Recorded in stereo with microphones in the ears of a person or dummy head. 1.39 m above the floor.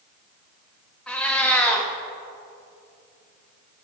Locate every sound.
1.1 s a cat meowing: 5° left (ahead or behind), 0.8 m